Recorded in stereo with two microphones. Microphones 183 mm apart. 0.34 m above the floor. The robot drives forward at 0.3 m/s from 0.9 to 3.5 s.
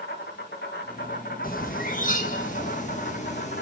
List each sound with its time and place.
0.0 s an insect: 65° left (ahead or behind), 2.5 m; by 3.6 s 60° left (ahead or behind), 2.5 m
1.4 s a bird: 50° left (ahead or behind), 2 m; by 3.6 s 40° left (ahead or behind), 2.5 m